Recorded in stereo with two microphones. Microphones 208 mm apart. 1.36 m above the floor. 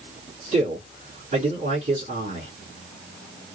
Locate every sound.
0.5 s a man speaking: 35° right (ahead or behind), 4.5 m